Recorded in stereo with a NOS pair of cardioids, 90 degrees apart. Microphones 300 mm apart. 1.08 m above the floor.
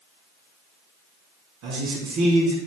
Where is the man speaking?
65° right, 1.1 m.